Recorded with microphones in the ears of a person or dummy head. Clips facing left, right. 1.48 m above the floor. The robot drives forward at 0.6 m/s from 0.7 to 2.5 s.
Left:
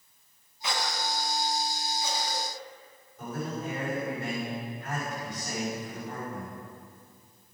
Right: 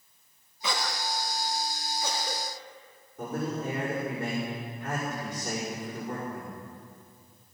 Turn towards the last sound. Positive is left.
turn(degrees=-50)  # may be behind; listen again after turning